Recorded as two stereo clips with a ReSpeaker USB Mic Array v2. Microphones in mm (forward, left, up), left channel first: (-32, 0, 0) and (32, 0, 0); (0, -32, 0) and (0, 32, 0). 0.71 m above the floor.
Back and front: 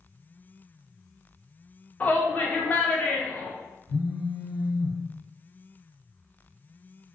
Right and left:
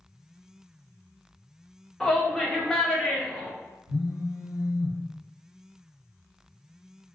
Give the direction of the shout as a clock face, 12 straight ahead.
5 o'clock.